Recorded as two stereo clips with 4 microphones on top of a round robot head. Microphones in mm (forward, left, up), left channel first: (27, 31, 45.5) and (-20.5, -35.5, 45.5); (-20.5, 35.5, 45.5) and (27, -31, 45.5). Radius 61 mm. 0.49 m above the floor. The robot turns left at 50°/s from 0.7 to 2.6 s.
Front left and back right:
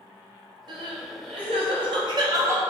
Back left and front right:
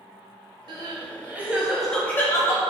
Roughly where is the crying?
Right.